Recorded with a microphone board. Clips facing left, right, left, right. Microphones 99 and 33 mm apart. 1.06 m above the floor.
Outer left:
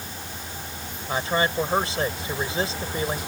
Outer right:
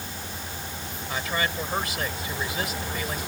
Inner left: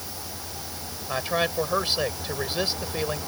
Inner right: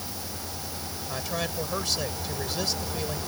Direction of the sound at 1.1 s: 30° left (ahead or behind).